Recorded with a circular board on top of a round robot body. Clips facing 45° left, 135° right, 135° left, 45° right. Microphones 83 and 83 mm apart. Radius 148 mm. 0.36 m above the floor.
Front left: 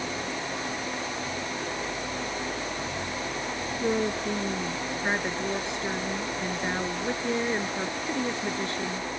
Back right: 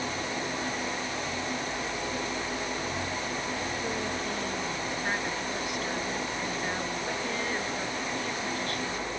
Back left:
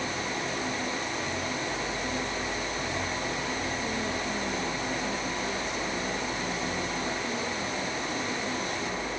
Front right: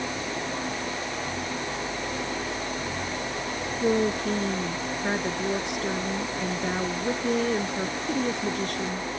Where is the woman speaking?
20° right.